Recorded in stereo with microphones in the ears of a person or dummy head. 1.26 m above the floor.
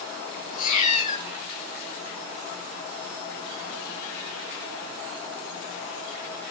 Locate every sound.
0.5 s a cat meowing: 50° left (ahead or behind), 8.5 m